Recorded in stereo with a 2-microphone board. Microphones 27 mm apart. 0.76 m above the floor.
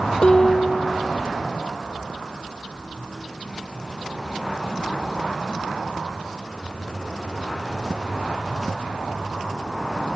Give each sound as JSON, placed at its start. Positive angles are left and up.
{"t": 0.2, "sound": "dishes clattering", "side_deg": 45}